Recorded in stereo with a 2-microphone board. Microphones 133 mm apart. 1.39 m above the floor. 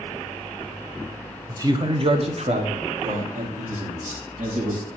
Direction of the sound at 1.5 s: 20° right (ahead or behind).